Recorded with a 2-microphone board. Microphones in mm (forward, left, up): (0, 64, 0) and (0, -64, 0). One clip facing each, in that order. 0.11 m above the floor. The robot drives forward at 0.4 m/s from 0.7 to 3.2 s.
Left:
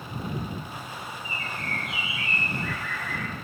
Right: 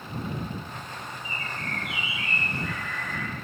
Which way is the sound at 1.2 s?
65° right (ahead or behind).